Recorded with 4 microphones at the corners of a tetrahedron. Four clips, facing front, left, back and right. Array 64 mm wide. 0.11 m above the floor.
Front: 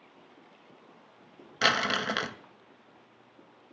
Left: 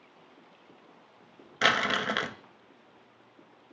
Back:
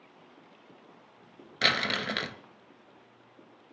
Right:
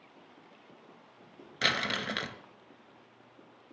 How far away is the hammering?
No hammering in this recording.